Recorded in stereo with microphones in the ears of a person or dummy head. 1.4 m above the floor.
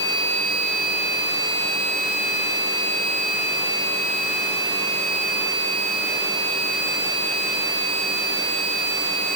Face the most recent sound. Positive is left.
No sound to turn to.